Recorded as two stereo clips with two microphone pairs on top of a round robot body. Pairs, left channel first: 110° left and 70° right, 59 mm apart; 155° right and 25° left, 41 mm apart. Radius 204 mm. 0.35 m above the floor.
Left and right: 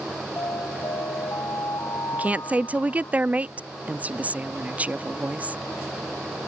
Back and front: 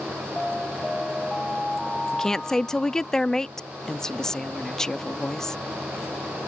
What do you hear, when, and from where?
0.4 s an alarm: 125° left
2.1 s a woman speaking: 90° right